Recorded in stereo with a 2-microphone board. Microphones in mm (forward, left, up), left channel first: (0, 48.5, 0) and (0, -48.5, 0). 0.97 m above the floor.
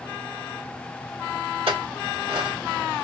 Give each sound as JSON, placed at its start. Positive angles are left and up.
{"t": 1.7, "sound": "a clink", "side_deg": -85, "distance_m": 3.0}